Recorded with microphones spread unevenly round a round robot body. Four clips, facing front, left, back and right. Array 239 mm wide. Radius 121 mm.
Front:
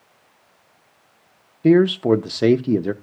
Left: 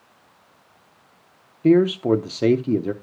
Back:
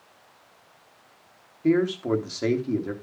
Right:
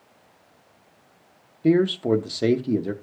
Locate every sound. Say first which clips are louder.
1.6 s a man speaking: left 3 dB, front 8 dB; 20° left, 0.7 m